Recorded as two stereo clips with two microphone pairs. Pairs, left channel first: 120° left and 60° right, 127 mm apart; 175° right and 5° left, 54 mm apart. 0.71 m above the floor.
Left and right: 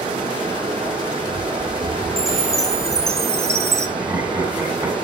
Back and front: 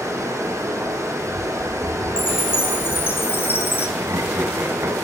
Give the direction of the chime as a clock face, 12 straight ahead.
4 o'clock.